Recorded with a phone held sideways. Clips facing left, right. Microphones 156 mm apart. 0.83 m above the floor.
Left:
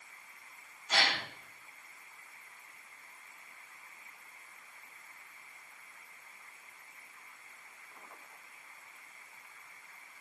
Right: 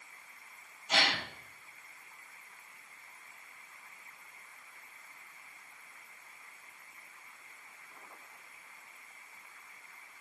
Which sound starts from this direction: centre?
A gasp, at 0.9 s.